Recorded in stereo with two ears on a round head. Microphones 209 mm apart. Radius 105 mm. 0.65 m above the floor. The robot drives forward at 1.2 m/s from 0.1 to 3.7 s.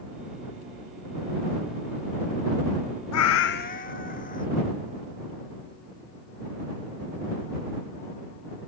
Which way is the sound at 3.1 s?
70° left (ahead or behind).